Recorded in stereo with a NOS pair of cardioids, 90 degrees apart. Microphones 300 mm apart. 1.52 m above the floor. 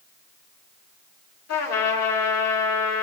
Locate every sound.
1.5 s a trumpet: 60° left, 5 m